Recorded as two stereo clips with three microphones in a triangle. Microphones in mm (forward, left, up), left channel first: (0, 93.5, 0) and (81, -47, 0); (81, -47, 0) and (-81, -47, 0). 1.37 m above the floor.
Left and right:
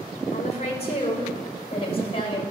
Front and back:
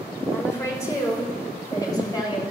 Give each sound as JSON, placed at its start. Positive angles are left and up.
{"t": 0.3, "sound": "a woman speaking", "azimuth_deg": 75, "distance_m": 6.5}